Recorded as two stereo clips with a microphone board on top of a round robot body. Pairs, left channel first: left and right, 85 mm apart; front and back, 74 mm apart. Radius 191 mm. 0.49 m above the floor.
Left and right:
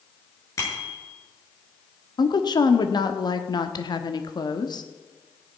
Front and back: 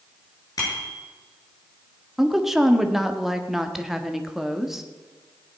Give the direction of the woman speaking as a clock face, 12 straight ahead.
9 o'clock.